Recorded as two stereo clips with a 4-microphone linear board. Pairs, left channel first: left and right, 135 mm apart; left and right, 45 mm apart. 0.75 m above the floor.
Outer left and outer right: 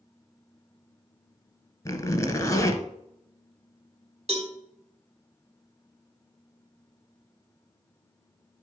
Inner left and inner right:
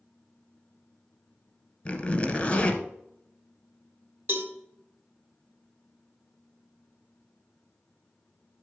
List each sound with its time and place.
1.9 s a zipper: 25° left (ahead or behind), 1.7 m
4.3 s a cowbell: 50° right (ahead or behind), 2.5 m